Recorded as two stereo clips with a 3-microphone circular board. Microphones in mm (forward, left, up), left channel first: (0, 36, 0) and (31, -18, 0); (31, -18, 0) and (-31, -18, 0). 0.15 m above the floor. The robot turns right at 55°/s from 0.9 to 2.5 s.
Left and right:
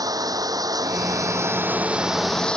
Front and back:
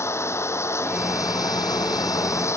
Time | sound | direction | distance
0.0 | running water | 45° right | ?